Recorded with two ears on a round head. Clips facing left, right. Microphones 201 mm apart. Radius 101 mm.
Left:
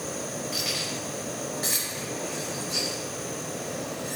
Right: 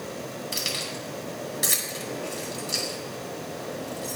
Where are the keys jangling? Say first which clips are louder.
Left 1 dB; 50° right (ahead or behind), 2.5 m.